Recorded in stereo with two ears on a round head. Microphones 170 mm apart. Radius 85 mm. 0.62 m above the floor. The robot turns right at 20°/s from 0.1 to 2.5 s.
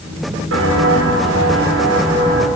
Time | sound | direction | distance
0.5 | footsteps | 75° right (ahead or behind) | 3.5 m